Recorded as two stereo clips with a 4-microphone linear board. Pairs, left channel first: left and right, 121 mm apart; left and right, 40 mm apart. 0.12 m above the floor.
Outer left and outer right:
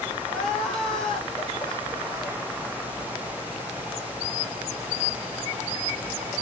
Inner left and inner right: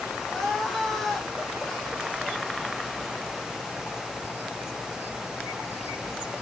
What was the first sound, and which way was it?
Crying, 5° left (ahead or behind).